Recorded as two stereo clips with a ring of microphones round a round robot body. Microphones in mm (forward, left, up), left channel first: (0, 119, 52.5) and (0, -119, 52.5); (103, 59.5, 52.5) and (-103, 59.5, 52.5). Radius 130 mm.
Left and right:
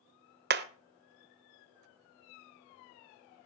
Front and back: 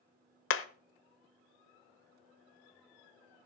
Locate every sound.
0.5 s hammering: 40° right, 1.0 m